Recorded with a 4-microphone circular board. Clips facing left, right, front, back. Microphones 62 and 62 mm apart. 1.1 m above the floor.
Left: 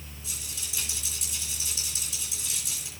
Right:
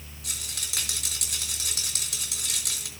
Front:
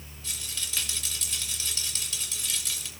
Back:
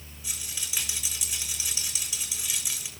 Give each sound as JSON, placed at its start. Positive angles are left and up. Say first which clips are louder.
{"t": 0.2, "sound": "a rattle", "louder": "right 4 dB, front 1 dB", "azimuth_deg": -105, "distance_m": 3.5}